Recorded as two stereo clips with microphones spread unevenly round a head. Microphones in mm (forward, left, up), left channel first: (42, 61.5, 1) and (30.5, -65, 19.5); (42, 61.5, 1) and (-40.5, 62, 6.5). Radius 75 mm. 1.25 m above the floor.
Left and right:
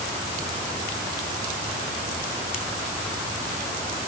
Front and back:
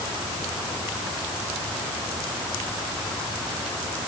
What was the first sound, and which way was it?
Only background noise.